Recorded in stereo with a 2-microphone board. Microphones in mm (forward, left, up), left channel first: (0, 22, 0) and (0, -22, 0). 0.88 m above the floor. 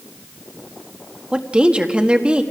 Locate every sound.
1.3 s a woman speaking: 20° right (ahead or behind), 1.6 m